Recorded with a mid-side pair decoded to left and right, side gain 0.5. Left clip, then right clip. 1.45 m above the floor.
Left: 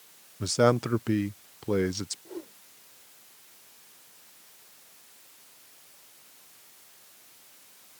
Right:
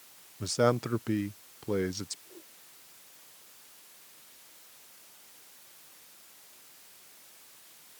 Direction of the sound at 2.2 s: 70° left.